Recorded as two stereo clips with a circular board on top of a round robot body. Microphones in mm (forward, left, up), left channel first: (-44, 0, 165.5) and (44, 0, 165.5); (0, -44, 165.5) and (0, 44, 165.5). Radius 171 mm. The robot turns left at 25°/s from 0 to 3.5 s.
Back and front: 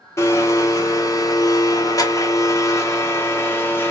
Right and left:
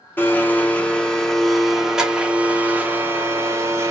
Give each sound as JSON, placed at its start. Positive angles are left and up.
{"t": 0.2, "sound": "a blender", "azimuth_deg": -145, "distance_m": 0.8}